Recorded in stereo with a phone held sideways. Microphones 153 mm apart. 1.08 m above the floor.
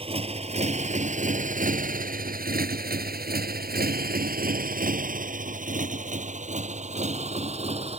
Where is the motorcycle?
40° right (ahead or behind); by 8.0 s 45° right (ahead or behind).